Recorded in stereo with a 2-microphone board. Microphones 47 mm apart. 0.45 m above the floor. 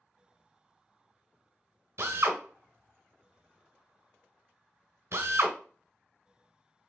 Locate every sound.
2.0 s a drill: 65° right (ahead or behind), 1.1 m